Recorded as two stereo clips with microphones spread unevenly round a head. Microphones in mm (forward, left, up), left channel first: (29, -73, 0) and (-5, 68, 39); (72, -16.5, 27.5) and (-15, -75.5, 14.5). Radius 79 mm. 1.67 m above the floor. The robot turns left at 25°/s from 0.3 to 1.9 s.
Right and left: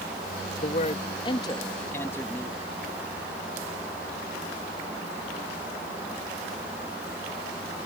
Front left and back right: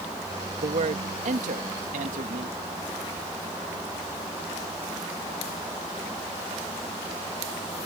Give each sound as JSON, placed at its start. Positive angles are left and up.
{"t": 0.6, "sound": "a man speaking", "azimuth_deg": -125}